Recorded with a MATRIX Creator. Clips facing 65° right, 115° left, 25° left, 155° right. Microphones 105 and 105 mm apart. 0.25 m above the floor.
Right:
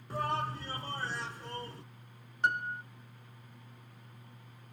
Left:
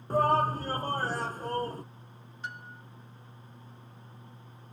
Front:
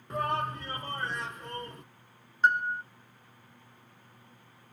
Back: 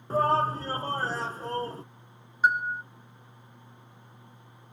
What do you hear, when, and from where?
0.1 s a shout: 150° left
2.4 s a piano: 75° right